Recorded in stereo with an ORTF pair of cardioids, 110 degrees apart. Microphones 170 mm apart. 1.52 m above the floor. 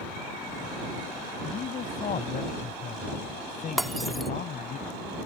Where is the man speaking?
45° left; by 4.8 s 50° left.